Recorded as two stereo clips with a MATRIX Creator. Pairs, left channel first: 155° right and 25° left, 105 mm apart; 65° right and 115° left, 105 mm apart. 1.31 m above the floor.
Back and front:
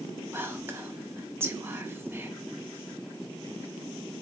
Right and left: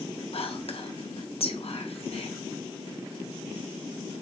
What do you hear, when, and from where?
0.3 s whispering: 45° right, 0.7 m